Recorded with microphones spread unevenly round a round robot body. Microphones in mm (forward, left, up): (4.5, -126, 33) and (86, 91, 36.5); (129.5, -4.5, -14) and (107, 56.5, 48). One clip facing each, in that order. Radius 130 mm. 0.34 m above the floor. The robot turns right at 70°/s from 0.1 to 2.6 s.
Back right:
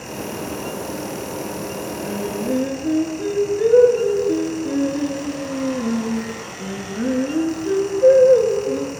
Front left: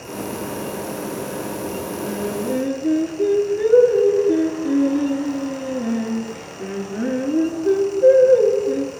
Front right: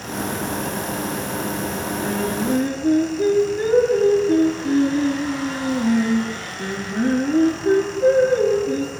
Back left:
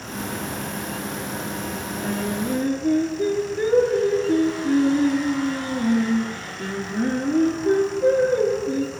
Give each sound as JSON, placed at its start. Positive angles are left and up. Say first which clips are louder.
{"t": 2.0, "sound": "singing", "louder": "even, front right 2 dB", "azimuth_deg": -70, "distance_m": 3.5}